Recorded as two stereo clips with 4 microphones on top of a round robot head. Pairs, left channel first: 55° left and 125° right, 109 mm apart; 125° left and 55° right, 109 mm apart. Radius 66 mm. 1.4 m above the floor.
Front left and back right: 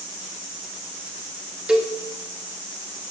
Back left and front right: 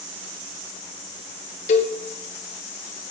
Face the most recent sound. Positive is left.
turn(degrees=150)